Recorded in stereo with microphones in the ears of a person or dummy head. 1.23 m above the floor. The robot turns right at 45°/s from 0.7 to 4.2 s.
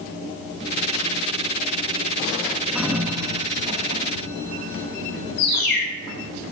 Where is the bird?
55° left (ahead or behind), 2 m.